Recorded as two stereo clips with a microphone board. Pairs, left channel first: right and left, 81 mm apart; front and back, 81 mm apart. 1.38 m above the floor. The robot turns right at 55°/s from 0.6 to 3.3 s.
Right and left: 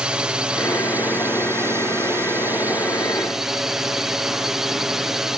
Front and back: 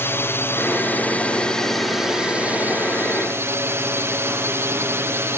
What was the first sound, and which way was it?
A drone, 20° left.